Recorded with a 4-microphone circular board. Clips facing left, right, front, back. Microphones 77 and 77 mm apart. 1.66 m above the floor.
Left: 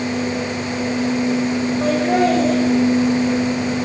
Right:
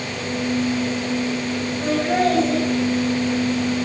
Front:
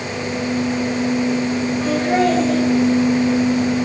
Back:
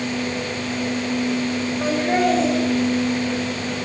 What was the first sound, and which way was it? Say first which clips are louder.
Laughter: left 2 dB, front 2 dB; 100° left.